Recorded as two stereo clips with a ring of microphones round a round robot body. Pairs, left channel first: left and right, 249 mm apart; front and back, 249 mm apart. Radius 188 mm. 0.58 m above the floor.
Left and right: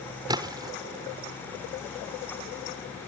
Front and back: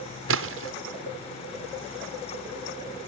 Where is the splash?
165° right.